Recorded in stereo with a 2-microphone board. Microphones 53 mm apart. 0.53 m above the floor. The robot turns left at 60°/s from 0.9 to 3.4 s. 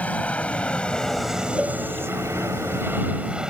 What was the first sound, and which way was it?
An aircraft, 30° left (ahead or behind).